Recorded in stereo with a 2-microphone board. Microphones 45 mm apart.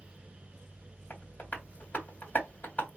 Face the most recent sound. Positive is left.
turn(degrees=40)  # may be behind; listen again after turning